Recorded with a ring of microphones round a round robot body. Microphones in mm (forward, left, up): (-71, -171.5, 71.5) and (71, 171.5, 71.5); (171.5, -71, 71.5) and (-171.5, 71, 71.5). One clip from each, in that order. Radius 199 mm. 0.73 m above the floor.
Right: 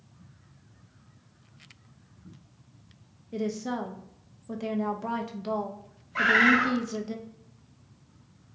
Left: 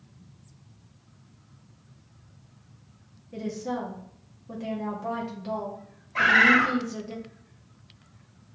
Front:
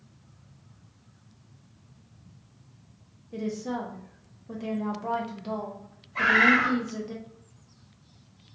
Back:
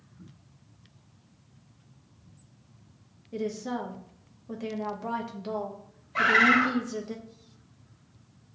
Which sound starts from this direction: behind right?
A woman speaking, at 3.3 s.